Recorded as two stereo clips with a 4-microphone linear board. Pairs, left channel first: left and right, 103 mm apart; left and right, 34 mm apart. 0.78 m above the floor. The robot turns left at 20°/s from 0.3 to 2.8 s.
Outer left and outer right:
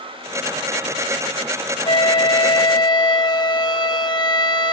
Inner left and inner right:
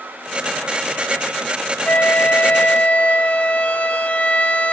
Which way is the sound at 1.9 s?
55° left (ahead or behind).